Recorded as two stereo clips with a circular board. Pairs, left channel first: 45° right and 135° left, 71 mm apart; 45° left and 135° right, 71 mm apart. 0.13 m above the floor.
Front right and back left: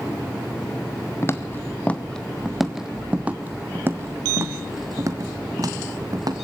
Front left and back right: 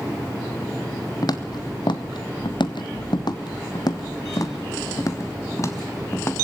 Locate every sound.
1.2 s footsteps: 10° left, 1.2 m; by 6.3 s 100° left, 2.5 m